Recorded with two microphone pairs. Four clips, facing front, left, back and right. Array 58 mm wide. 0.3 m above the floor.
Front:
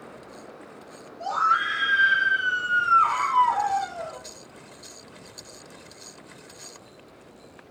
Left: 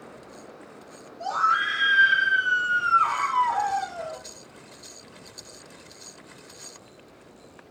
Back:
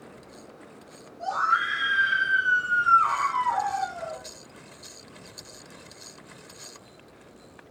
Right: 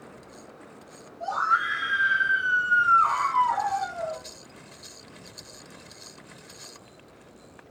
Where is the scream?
45° left, 3 m.